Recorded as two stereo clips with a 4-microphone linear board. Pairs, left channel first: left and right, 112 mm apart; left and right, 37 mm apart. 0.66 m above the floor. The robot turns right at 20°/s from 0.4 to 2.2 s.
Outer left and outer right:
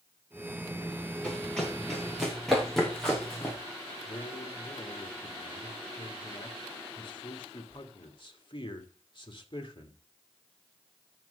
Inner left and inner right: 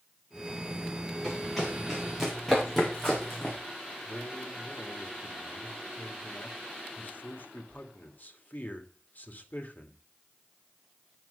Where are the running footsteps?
10° left (ahead or behind), 6.5 m; by 3.6 s 15° left (ahead or behind), 4.5 m.